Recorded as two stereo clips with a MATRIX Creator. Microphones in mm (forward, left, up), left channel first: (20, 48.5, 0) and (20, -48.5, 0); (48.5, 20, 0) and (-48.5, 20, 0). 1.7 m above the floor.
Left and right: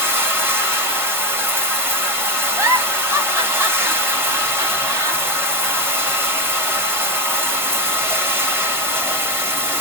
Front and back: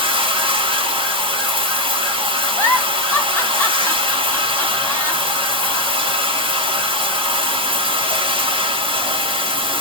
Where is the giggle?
50° right, 1.2 m.